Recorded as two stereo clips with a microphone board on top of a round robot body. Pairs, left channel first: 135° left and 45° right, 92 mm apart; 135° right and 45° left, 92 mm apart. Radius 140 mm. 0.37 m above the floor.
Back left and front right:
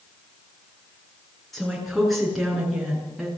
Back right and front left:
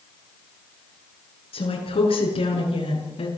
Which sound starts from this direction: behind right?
A woman speaking, at 1.5 s.